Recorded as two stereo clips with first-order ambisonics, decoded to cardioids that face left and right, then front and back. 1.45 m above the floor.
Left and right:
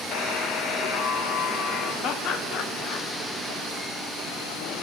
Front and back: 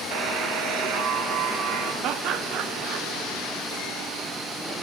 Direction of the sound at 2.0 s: 135° left.